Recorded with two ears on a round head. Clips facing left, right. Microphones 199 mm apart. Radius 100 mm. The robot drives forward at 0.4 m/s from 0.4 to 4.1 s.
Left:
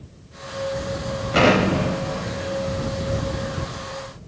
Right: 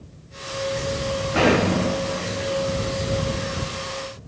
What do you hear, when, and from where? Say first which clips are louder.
1.3 s an explosion: left 2 dB; 55° left (ahead or behind), 0.8 m; by 4.2 s 25° left (ahead or behind), 1.7 m